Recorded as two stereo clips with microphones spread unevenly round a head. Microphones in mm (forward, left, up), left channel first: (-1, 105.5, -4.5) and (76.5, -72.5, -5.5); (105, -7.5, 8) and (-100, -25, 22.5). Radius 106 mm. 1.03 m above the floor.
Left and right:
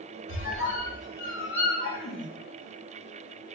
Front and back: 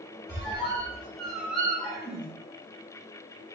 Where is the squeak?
95° left, 0.8 m.